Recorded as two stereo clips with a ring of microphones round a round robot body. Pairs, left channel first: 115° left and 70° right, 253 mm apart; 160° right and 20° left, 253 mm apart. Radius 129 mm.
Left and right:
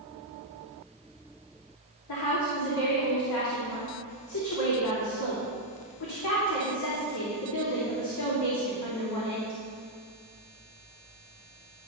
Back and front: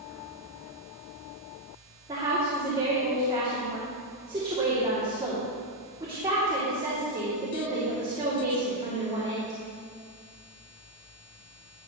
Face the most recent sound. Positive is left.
turn(degrees=95)